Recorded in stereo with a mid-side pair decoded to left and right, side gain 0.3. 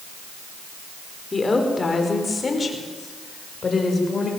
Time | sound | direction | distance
1.3 | a woman speaking | 40° left | 5.5 m